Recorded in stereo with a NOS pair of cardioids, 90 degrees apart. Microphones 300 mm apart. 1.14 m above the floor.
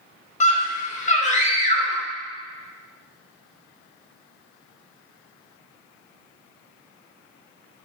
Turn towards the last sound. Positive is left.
turn(degrees=25)